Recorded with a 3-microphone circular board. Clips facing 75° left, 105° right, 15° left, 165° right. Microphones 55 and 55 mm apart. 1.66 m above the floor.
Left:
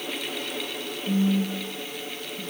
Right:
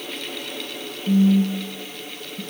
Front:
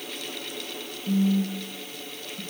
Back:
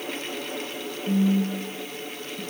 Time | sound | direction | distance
1.1 | a phone buzzing | 80° right | 3 m